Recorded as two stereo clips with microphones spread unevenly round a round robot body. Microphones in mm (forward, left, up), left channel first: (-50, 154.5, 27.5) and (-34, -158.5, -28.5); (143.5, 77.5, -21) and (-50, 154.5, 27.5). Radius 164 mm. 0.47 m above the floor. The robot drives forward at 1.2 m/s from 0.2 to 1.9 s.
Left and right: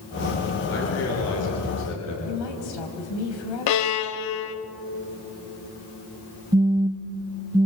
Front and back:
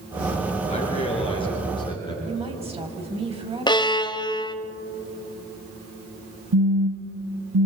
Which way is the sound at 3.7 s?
50° left.